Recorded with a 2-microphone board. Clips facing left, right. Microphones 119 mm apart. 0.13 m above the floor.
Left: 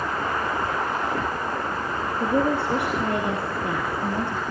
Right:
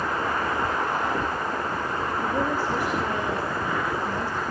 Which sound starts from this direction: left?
A woman speaking, at 2.2 s.